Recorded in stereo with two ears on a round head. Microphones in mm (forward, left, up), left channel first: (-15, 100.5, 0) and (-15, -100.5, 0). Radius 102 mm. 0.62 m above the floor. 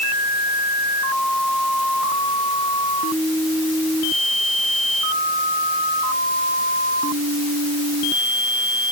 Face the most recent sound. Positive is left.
No sound to turn to.